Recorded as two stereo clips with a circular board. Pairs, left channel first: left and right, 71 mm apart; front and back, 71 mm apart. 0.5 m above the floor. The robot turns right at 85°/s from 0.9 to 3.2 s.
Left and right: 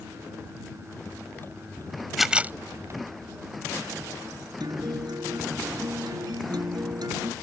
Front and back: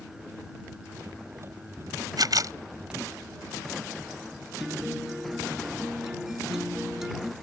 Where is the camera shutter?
Straight behind; by 2.5 s 145° right.